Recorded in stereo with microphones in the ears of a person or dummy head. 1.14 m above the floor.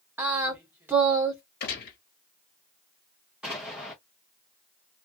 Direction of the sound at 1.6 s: 45° left (ahead or behind).